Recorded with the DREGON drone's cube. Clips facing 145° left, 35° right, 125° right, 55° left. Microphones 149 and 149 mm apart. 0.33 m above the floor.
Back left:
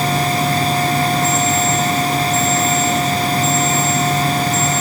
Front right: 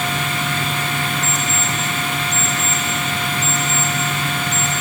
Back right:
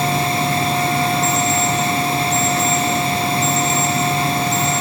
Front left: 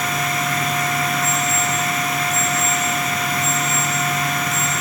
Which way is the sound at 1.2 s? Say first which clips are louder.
Back left 8 dB, back right 4 dB; 15° left.